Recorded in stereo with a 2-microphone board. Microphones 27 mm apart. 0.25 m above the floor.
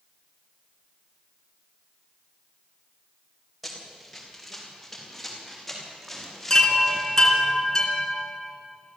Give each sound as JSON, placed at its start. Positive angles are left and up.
{"t": 3.6, "sound": "running footsteps", "side_deg": 5, "distance_m": 5.5}
{"t": 6.5, "sound": "a chime", "side_deg": 25, "distance_m": 3.5}